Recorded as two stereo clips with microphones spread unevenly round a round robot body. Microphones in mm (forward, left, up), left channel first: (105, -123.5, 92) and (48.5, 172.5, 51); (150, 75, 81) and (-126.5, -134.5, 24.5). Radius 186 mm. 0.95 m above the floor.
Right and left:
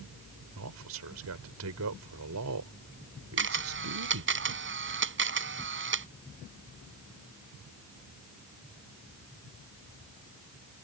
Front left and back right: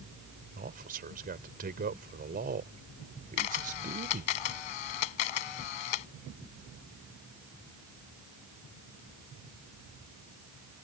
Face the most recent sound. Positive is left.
turn(degrees=50)